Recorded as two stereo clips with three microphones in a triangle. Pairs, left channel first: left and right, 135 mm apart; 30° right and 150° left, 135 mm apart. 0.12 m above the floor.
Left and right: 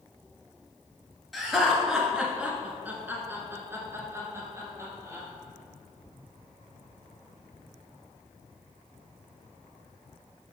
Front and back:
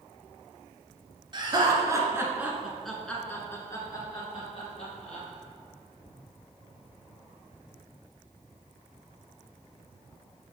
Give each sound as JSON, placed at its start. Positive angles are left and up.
{"t": 1.3, "sound": "laughter", "azimuth_deg": 180, "distance_m": 1.7}